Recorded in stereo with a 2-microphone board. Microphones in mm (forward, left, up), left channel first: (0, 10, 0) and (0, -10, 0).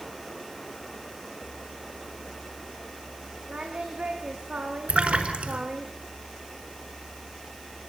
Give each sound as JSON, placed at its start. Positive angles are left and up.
{"t": 3.5, "sound": "singing", "side_deg": -65, "distance_m": 7.0}
{"t": 4.9, "sound": "a splash", "side_deg": -85, "distance_m": 5.5}